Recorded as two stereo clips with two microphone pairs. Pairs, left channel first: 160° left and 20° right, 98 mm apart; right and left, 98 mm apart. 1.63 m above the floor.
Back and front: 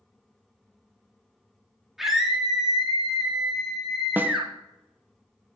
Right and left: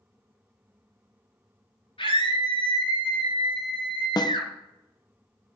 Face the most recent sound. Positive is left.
turn(degrees=-85)